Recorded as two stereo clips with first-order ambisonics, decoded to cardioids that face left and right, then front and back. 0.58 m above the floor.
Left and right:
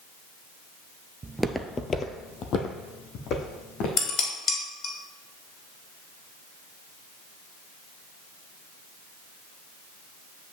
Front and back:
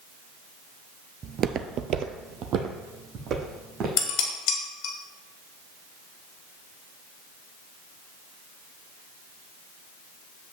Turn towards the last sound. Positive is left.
turn(degrees=40)